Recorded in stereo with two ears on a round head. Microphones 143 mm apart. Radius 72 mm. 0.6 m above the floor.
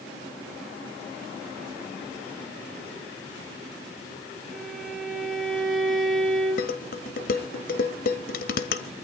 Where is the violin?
Centre (ahead or behind), 5 m.